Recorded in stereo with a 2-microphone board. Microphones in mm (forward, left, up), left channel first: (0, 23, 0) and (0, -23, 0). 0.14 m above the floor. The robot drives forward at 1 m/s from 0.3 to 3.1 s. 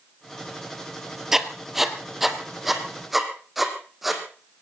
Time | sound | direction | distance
1.3 | writing | 10° right (ahead or behind) | 1.5 m